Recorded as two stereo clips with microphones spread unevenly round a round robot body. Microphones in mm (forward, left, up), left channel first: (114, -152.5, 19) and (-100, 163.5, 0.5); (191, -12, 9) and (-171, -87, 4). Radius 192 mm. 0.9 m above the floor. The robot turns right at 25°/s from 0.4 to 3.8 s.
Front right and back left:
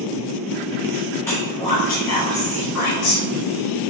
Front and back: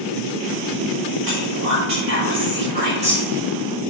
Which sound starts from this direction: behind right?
Whispering, at 1.2 s.